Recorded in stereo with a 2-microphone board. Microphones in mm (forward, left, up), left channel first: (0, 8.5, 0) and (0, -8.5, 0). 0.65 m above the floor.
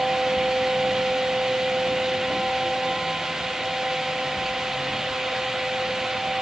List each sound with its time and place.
Only background noise.